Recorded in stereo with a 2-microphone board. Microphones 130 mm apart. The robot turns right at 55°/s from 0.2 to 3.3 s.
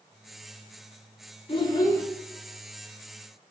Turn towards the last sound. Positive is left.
turn(degrees=-135)